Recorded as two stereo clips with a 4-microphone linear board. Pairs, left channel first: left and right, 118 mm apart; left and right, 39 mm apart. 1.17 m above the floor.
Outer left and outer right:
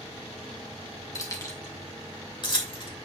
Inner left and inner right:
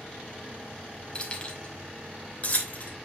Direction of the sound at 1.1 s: 30° left (ahead or behind).